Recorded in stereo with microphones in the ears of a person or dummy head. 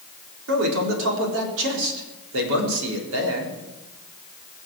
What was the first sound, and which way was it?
A man speaking, 80° right.